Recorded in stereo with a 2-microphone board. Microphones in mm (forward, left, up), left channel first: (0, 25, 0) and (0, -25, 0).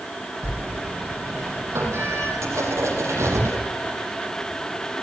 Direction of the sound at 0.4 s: 60° right (ahead or behind).